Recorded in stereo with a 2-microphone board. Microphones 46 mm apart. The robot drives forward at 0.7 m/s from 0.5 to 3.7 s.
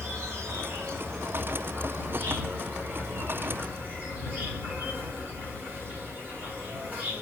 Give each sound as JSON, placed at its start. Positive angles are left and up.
{"t": 0.0, "sound": "an insect", "side_deg": -70, "distance_m": 3.0}